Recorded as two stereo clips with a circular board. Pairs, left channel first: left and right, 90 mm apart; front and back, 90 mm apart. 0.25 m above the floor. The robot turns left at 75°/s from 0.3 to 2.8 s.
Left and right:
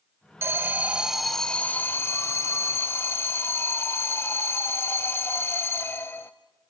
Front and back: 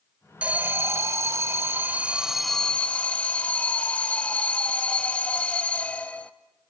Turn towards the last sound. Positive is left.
turn(degrees=65)